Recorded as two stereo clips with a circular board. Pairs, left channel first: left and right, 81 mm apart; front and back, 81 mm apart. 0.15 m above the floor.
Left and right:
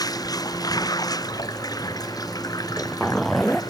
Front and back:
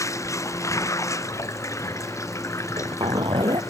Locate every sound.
0.0 s running water: 50° left
2.6 s a zipper: 175° left